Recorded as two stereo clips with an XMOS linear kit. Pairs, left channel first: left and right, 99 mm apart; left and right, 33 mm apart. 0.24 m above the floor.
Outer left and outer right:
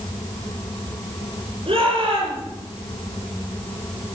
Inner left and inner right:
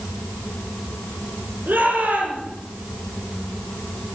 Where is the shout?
70° right (ahead or behind), 7 m.